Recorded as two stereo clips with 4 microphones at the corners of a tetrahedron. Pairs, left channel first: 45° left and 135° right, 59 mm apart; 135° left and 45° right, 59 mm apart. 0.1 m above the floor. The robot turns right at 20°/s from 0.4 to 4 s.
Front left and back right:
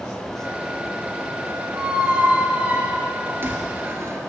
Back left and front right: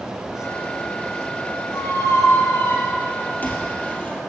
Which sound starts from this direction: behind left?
A squeak, at 1.7 s.